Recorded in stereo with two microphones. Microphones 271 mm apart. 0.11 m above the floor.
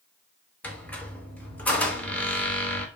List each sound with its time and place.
0.6 s a squeak: 5° left (ahead or behind), 0.5 m